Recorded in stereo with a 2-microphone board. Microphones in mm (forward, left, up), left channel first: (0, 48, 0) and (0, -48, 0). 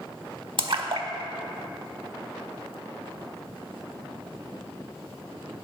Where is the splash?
60° right (ahead or behind), 0.6 m.